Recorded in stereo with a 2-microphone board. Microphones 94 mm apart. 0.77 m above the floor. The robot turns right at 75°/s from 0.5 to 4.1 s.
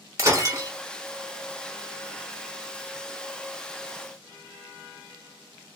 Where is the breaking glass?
30° right (ahead or behind), 0.8 m; by 0.7 s 45° right (ahead or behind), 0.8 m.